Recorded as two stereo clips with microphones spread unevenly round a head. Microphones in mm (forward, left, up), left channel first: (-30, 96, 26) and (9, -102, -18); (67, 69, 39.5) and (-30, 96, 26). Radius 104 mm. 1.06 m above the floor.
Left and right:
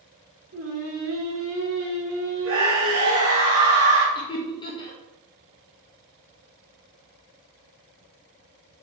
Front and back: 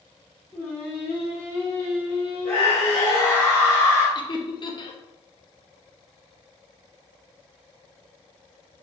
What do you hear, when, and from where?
0.5 s singing: 95° right, 1.7 m
2.5 s a scream: 95° right, 1.4 m
4.2 s laughter: 30° left, 0.9 m